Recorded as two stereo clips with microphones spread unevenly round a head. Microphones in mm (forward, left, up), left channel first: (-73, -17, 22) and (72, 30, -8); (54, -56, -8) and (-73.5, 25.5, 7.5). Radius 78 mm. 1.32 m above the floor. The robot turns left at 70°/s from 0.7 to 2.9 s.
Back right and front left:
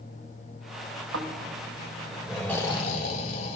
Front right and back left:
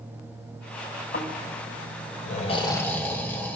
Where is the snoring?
10° left, 4 m; by 3.6 s 110° right, 4 m.